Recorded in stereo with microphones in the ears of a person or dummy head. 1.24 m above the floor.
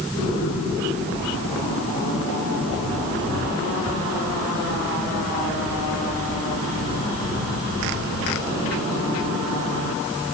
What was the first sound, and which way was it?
Only background noise.